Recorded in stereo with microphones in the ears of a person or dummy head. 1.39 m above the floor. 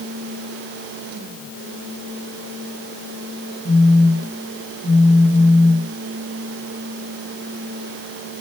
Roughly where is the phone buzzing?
Right.